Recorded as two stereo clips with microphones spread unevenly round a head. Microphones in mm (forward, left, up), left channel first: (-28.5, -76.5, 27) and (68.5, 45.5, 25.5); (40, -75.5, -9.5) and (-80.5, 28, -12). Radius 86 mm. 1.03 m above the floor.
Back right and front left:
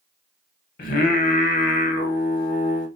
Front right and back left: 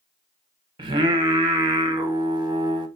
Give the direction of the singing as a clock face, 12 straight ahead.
5 o'clock.